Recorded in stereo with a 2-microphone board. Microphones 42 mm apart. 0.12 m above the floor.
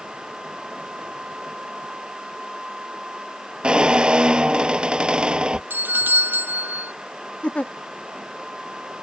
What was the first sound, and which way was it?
A squeak, 25° right (ahead or behind).